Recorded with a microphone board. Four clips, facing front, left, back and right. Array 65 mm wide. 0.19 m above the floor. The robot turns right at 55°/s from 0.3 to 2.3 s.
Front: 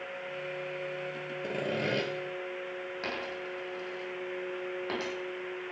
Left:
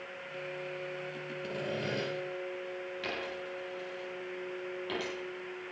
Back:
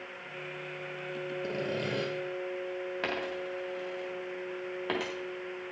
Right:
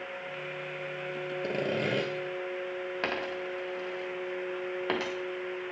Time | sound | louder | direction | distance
1.4 | sawing | right 5 dB, front 3 dB | 80° right | 3 m
3.0 | a dropped coin | right 6 dB, back 2 dB | 110° right | 4.5 m